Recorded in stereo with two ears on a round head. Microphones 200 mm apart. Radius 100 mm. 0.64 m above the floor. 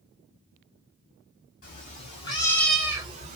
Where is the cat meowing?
40° left (ahead or behind), 1.5 m; by 3.4 s 35° right (ahead or behind), 0.9 m.